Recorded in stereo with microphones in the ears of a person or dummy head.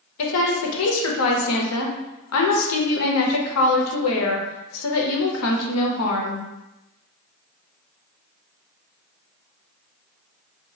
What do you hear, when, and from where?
0.2 s a woman speaking: 85° left, 0.7 m